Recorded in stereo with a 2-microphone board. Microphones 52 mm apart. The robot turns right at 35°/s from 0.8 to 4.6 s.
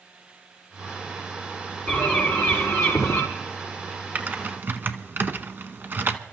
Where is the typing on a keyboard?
35° right (ahead or behind), 0.9 m; by 6.2 s 45° right (ahead or behind), 0.9 m.